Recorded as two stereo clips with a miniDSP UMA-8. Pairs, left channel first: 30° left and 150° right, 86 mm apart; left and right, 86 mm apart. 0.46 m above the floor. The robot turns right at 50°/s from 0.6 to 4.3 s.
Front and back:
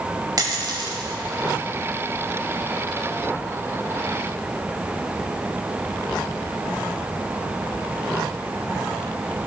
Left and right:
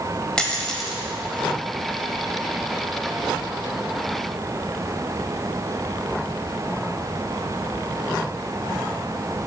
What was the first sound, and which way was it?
A dropped coin, 170° left.